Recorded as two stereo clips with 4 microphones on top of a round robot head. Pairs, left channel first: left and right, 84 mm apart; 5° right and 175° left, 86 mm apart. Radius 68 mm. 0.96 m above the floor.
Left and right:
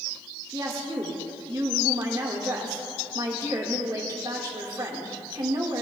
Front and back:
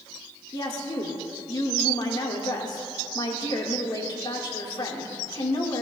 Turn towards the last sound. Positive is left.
turn(degrees=-40)